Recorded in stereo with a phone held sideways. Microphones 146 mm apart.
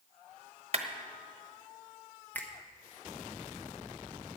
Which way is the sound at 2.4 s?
10° left (ahead or behind).